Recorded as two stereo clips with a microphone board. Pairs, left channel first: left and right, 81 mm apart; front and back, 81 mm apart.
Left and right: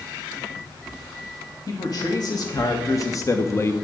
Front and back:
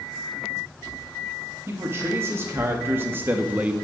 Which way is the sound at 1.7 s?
125° left.